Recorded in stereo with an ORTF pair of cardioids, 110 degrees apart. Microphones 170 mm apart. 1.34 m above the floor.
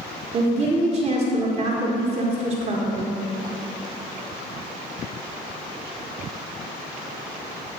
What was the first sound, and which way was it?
A woman speaking, 45° right.